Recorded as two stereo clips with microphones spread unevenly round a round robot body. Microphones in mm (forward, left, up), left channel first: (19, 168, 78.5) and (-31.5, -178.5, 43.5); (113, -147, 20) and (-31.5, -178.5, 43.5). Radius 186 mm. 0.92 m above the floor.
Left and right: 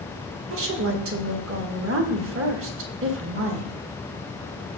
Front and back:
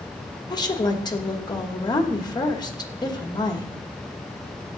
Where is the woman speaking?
50° right, 2 m.